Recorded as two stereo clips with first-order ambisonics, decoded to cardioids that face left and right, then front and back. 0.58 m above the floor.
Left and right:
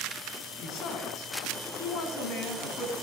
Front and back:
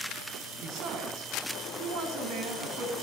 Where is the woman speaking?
135° left, 4.5 m.